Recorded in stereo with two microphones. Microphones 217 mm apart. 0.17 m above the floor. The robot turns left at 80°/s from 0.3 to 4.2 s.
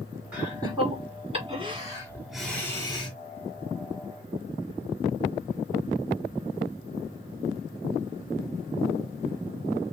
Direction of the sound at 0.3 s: 5° right (ahead or behind).